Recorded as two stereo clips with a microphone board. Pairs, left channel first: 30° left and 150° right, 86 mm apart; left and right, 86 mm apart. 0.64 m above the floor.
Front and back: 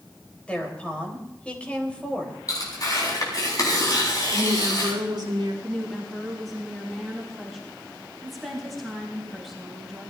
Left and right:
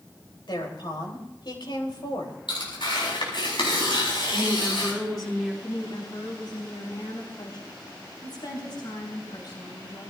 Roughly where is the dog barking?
No dog barking in this recording.